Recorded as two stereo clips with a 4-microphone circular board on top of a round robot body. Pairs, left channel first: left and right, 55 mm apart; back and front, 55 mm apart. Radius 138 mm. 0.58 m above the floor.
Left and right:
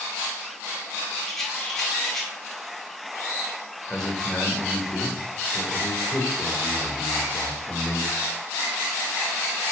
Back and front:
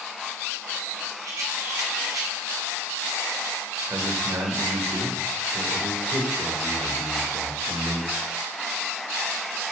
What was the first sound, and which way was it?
A rattle, 10° left.